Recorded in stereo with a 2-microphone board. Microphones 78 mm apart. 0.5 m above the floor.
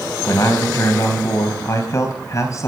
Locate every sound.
0.3 s a man speaking: 45° left (ahead or behind), 3.5 m